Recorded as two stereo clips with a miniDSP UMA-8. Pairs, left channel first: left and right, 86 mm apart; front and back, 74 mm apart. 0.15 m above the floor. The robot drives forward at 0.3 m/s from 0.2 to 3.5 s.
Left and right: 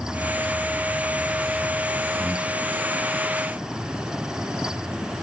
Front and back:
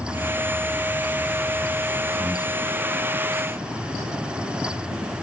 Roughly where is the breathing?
Behind right.